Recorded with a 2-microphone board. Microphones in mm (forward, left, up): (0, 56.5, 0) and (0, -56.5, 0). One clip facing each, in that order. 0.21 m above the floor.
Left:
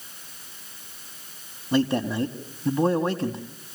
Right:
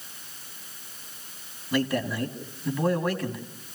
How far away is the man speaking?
About 1.5 m.